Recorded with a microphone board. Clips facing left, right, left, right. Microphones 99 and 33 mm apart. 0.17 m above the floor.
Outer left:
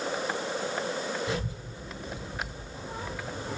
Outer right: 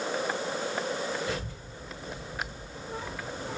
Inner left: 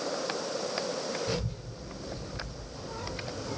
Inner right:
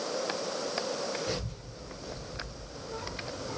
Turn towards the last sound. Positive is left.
turn(degrees=35)  # may be behind; listen again after turning